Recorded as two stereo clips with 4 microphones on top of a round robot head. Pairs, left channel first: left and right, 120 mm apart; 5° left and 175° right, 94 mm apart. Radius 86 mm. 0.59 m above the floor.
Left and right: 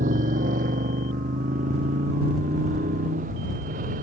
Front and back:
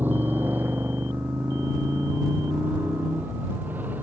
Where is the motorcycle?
100° right.